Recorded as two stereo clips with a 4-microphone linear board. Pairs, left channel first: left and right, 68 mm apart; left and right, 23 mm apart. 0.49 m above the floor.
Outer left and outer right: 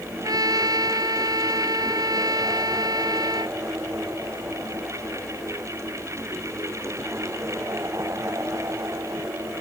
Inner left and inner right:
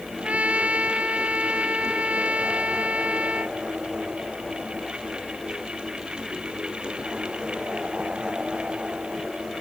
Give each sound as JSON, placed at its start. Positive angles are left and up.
{"t": 0.2, "sound": "a trumpet", "side_deg": -75}